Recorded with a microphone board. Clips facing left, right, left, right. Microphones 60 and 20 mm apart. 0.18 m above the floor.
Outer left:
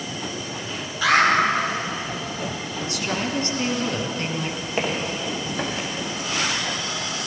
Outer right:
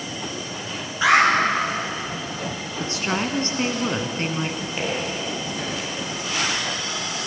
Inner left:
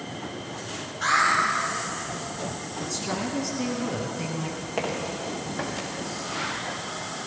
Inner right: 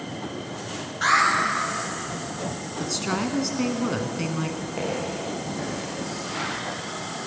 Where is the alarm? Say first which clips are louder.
Outer right 2 dB, inner right 2 dB; 25° right (ahead or behind), 4.5 m.